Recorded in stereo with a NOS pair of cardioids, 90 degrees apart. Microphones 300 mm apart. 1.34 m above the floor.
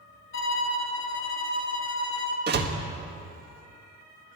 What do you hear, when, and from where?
0.3 s a violin: 45° left, 1.6 m
2.5 s a door slam: 35° right, 1.5 m